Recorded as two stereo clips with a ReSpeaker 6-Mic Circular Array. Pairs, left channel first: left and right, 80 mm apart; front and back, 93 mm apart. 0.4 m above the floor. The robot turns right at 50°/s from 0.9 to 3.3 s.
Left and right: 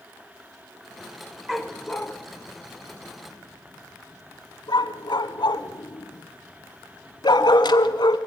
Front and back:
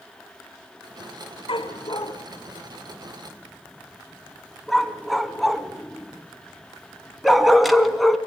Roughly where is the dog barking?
Ahead.